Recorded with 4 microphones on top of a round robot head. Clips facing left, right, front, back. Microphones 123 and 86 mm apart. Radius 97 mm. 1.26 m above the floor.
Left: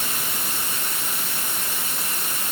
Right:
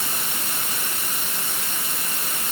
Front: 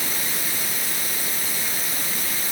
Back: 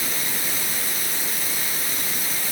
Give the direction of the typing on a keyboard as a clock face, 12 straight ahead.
I don't hear typing on a keyboard.